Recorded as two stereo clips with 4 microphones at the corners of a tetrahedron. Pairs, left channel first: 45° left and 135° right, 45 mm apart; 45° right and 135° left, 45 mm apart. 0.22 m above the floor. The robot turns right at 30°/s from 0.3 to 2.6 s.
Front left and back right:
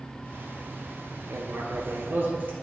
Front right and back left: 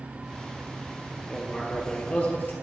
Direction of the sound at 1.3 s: 130° right.